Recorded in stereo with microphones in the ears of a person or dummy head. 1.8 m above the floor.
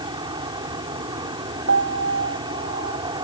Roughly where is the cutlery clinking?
No cutlery clinking in this recording.